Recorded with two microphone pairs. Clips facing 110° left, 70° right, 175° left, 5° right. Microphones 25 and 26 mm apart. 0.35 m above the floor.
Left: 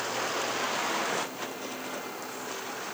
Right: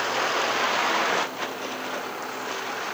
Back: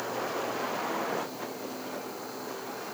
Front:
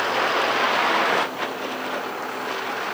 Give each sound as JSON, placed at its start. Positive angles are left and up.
{"t": 0.0, "sound": "a vehicle", "azimuth_deg": -10}